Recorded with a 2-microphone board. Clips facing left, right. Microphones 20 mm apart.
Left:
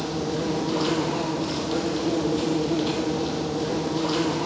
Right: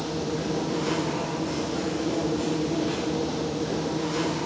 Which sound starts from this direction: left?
An insect, at 0.0 s.